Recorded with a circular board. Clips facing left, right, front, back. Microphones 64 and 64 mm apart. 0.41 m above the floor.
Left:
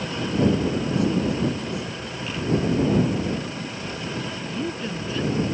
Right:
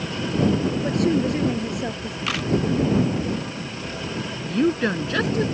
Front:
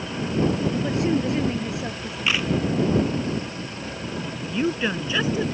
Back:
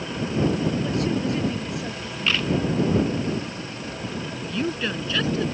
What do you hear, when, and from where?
0.8 s a woman speaking: 65° right
2.3 s a camera shutter: 80° right
4.5 s a woman speaking: 75° right